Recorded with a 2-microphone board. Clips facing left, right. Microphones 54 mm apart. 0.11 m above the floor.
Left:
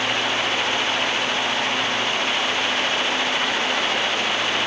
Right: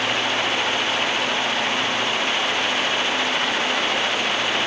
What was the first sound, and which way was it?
Only background noise.